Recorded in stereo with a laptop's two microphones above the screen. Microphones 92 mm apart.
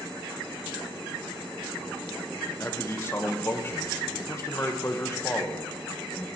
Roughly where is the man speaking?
Left.